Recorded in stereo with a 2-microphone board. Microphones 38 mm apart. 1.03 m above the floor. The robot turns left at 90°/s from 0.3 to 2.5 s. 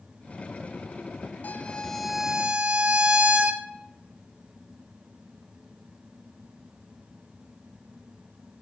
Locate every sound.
1.4 s a violin: 55° left, 0.6 m; by 3.7 s 40° right, 0.6 m